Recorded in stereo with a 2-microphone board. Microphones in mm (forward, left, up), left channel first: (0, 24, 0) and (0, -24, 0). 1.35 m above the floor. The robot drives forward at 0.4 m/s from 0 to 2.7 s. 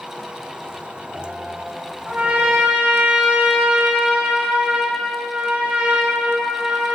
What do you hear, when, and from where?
2.0 s a trumpet: 20° right (ahead or behind), 3.5 m; by 7.0 s 25° right (ahead or behind), 3 m